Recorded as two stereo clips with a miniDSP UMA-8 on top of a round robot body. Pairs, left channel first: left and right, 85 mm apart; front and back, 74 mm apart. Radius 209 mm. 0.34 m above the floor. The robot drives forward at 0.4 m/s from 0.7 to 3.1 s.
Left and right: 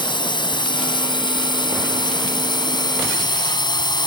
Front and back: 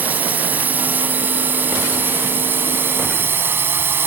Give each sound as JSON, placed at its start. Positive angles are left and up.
{"t": 0.0, "sound": "a drone", "azimuth_deg": 115}